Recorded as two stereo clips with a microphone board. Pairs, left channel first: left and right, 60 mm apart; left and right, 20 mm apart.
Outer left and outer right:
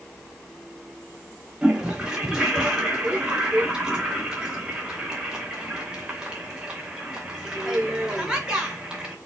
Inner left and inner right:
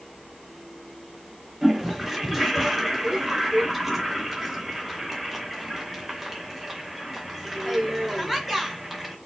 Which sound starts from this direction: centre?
A toilet flushing, at 1.6 s.